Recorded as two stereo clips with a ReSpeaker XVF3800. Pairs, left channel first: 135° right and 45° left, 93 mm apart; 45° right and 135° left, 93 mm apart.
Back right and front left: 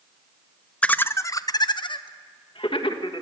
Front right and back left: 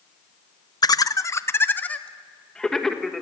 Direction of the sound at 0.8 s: 65° right.